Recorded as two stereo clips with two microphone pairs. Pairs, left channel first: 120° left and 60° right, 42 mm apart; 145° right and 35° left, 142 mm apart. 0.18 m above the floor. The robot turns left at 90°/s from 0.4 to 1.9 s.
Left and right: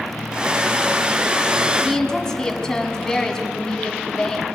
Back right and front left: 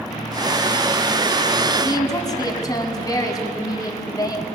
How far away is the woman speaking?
About 1.5 m.